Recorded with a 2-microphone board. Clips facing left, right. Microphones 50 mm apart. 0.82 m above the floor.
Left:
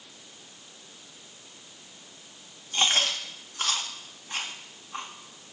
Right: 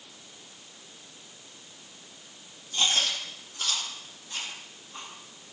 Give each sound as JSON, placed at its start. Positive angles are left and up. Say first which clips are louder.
{"t": 2.7, "sound": "chewing", "louder": "left 2 dB", "side_deg": 55, "distance_m": 1.7}